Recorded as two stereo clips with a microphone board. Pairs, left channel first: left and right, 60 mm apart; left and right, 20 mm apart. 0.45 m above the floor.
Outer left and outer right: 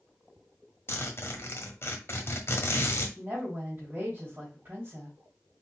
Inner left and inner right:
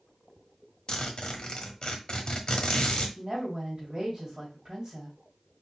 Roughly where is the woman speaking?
Right.